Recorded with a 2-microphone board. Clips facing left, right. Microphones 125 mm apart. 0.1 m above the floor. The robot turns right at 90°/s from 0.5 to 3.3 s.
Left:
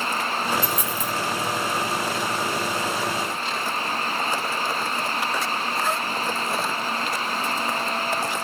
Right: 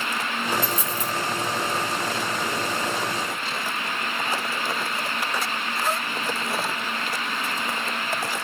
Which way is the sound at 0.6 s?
45° right (ahead or behind).